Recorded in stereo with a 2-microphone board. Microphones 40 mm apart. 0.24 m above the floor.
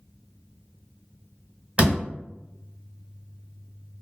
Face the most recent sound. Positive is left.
turn(degrees=-35)  # may be behind; listen again after turning